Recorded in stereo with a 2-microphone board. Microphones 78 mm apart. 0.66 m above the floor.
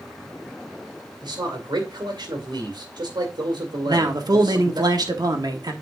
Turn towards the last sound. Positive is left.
turn(degrees=-55)  # may be behind; listen again after turning